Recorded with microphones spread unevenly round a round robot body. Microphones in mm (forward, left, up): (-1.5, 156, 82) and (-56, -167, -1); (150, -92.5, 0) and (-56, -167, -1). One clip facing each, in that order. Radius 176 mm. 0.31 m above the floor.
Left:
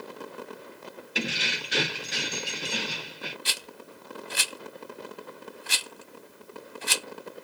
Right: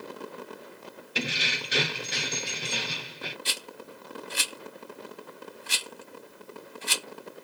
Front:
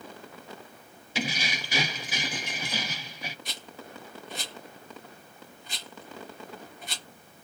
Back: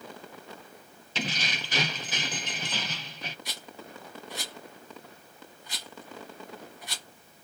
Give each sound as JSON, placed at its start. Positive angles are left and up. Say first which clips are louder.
{"t": 1.1, "sound": "keys jangling", "louder": "left 1 dB, front 2 dB", "azimuth_deg": -50, "distance_m": 0.6}
{"t": 3.5, "sound": "a rattle", "louder": "right 2 dB, even", "azimuth_deg": 85, "distance_m": 0.9}